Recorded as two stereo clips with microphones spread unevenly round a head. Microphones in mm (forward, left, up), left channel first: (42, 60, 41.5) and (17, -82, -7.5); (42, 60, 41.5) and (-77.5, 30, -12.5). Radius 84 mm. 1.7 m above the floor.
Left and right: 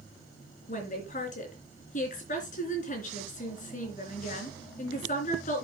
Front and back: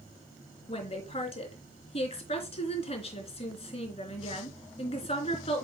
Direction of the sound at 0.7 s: 50° left.